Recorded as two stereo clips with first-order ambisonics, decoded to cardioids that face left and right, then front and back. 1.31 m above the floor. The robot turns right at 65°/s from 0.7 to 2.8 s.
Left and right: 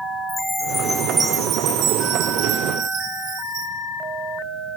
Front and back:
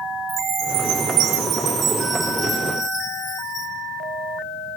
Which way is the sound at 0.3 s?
170° left.